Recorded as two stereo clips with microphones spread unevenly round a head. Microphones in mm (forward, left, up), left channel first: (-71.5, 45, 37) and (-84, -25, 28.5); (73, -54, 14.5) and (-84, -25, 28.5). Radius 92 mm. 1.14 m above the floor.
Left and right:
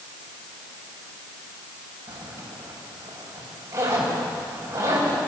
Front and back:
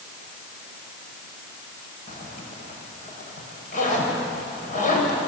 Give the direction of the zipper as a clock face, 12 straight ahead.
2 o'clock.